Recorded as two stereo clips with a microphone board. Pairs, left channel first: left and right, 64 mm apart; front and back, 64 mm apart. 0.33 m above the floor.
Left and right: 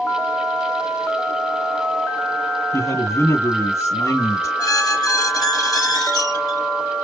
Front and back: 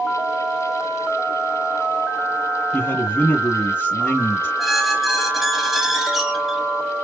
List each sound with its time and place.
2.7 s a man speaking: 55° left, 3 m
4.6 s a squeak: 90° left, 4.5 m